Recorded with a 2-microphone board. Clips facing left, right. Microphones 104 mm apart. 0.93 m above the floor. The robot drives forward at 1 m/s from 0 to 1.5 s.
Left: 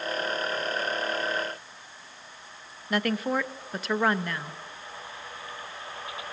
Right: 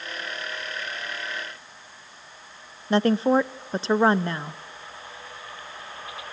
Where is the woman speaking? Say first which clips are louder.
Right 7 dB; 30° right (ahead or behind), 0.7 m.